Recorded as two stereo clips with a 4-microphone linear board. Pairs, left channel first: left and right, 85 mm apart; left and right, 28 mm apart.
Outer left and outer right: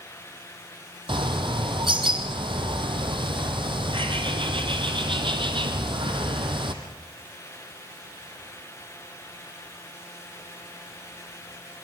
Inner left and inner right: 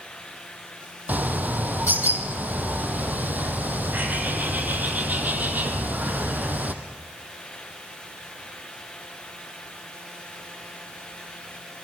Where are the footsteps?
I don't hear footsteps.